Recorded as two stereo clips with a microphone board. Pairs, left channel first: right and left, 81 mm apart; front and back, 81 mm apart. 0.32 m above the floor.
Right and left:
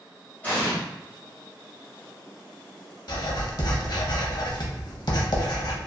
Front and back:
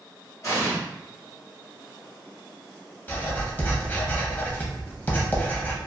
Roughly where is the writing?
Ahead right.